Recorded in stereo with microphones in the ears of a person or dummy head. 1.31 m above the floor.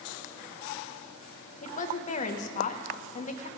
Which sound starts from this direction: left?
A woman speaking, at 1.6 s.